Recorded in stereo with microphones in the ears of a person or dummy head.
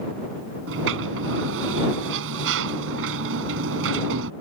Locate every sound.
0.7 s a sliding door: 70° right (ahead or behind)